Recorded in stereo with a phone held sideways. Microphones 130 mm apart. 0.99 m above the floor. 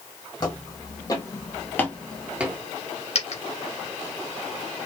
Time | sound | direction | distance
0.4 | footsteps | 35° left (ahead or behind) | 2 m
3.1 | a dropped coin | 55° left (ahead or behind) | 1.5 m